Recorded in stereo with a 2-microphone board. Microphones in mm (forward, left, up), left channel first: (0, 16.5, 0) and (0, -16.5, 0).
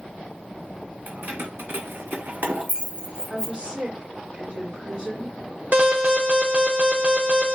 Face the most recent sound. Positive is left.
turn(degrees=-45)  # may be behind; listen again after turning